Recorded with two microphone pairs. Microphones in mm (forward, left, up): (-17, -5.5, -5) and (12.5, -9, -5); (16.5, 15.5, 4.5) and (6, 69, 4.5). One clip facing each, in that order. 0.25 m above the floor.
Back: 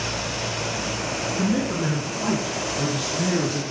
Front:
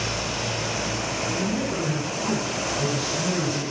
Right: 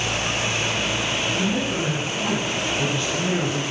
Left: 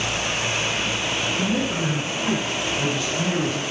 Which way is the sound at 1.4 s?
170° left.